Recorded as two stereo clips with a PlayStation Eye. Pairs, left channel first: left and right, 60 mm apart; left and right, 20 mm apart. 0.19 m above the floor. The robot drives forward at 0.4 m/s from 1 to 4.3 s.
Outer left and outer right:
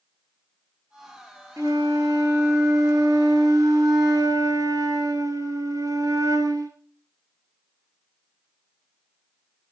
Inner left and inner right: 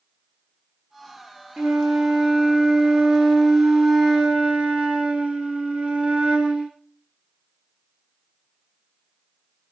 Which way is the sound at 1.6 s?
60° right (ahead or behind).